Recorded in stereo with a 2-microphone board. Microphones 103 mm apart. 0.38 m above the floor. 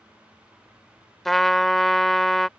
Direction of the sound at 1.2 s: 5° left (ahead or behind).